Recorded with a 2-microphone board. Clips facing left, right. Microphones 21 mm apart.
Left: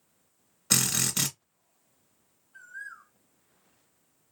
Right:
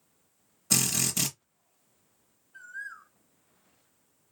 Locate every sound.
0.7 s a drill: 40° left (ahead or behind), 1.5 m
2.5 s a bird: centre (ahead or behind), 1.9 m